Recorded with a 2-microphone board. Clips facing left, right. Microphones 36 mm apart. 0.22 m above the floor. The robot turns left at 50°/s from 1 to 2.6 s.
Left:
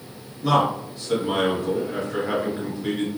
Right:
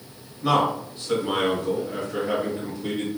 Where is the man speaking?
135° right, 1.2 m; by 3.1 s 145° left, 1.2 m.